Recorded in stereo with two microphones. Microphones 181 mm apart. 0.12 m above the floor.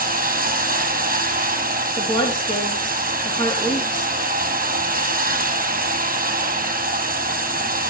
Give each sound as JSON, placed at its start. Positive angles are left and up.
{"t": 0.0, "sound": "running water", "side_deg": -50, "distance_m": 1.8}
{"t": 2.0, "sound": "a woman speaking", "side_deg": 25, "distance_m": 3.5}